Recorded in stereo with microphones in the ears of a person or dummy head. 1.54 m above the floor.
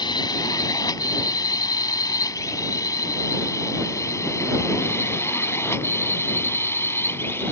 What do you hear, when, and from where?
0.0 s a drone: 20° left (ahead or behind); by 7.5 s 10° left (ahead or behind)